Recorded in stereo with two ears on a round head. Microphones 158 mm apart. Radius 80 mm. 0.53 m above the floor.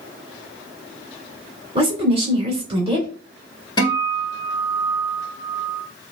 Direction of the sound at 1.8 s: 30° right (ahead or behind).